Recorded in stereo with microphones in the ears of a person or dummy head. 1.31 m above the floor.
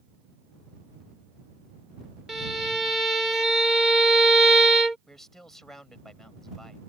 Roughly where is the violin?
Centre.